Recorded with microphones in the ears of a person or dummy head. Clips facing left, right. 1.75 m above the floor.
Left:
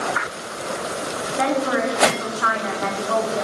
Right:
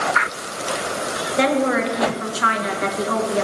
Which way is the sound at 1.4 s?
50° right (ahead or behind).